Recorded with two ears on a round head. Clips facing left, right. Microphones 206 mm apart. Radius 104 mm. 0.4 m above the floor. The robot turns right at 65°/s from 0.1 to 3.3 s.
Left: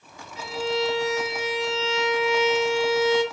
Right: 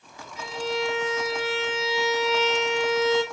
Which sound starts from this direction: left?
A violin, at 0.4 s.